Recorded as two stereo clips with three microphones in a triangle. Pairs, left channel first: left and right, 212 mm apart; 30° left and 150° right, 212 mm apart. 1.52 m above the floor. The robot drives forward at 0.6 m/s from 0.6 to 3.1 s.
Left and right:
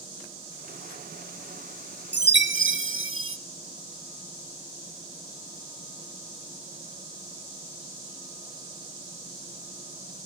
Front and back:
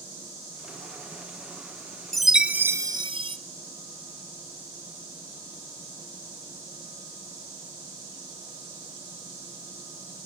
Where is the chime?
60° right, 1.5 m; by 3.4 s 80° right, 1.3 m.